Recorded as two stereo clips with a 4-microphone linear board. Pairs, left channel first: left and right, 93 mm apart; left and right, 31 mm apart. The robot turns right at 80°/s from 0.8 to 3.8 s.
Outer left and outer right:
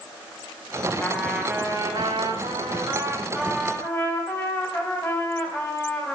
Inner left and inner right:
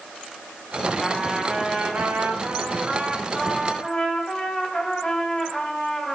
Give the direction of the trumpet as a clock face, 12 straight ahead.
7 o'clock.